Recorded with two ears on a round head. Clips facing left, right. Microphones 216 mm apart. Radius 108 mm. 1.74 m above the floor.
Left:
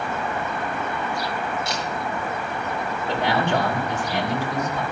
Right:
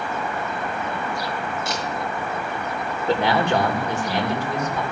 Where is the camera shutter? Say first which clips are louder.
Right 1 dB; 45° right (ahead or behind), 7.5 m.